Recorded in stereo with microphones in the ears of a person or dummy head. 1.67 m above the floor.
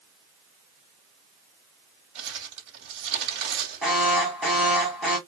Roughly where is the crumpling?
Right.